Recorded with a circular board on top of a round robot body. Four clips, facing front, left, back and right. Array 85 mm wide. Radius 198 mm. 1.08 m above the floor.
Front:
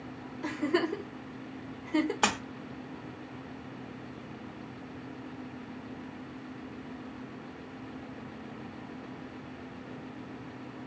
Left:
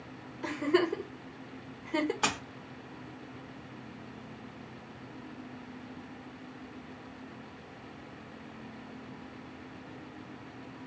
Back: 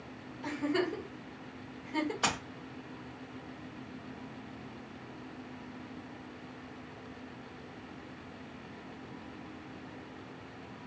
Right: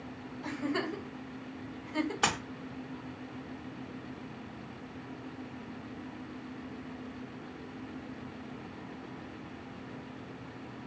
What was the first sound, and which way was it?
A giggle, 65° left.